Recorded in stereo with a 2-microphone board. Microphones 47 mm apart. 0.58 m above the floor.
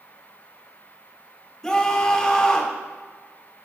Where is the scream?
15° left (ahead or behind), 1.7 m.